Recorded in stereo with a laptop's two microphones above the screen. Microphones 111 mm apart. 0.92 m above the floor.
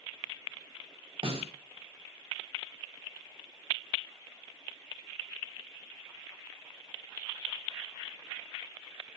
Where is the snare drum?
60° right (ahead or behind), 3.5 m.